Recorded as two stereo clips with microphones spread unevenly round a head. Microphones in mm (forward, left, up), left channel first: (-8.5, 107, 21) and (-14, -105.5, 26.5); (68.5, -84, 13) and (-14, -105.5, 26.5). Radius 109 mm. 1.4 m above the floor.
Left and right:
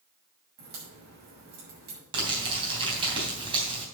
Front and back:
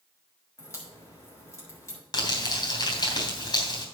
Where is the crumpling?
25° right, 3 m.